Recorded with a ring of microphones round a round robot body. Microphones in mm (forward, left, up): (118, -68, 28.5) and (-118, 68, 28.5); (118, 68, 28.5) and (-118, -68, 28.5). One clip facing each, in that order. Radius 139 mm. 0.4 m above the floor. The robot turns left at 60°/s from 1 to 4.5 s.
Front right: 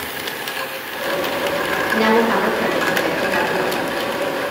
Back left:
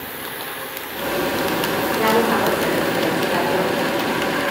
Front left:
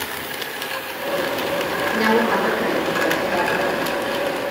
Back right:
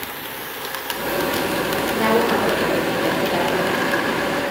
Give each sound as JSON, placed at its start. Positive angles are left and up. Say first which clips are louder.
{"t": 1.9, "sound": "a woman speaking", "louder": "front right 3 dB, even", "azimuth_deg": -25, "distance_m": 2.0}